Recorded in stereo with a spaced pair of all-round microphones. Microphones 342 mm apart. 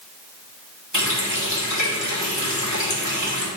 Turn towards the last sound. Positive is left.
turn(degrees=55)  # may be behind; listen again after turning